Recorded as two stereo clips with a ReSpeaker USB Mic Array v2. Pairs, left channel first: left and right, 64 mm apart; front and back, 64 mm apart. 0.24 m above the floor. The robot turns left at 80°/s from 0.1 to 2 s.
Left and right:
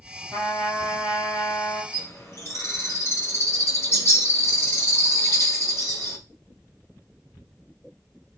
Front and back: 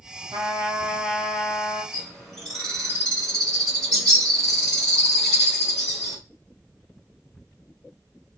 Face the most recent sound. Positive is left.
turn(degrees=75)